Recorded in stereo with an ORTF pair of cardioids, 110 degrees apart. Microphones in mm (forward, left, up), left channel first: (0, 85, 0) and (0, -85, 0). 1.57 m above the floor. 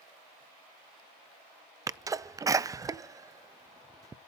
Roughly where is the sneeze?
Ahead.